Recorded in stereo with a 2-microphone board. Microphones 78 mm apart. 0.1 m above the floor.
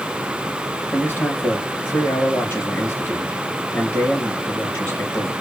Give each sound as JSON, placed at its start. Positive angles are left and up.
{"t": 0.9, "sound": "a man speaking", "side_deg": 25, "distance_m": 1.8}